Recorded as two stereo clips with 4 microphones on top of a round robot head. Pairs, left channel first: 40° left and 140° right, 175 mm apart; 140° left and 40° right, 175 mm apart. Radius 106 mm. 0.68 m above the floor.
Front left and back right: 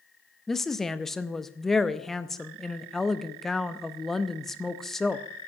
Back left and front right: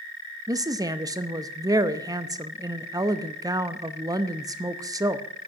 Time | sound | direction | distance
0.5 | a woman speaking | 45° right | 0.7 m